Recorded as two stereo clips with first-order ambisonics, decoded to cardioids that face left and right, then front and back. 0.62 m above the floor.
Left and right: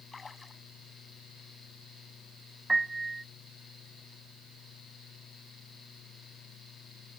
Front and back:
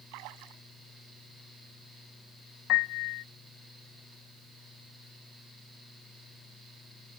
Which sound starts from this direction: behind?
A splash, at 0.1 s.